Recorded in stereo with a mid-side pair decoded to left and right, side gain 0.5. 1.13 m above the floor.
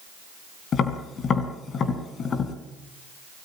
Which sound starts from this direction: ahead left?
Tapping, at 0.7 s.